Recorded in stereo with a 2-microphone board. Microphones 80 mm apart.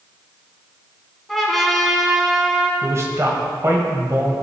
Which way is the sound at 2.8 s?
35° right (ahead or behind).